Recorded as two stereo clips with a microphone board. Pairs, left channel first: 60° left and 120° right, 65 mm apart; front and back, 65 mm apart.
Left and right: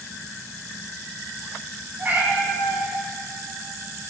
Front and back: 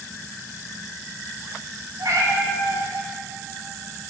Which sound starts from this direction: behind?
A cat meowing, at 2.0 s.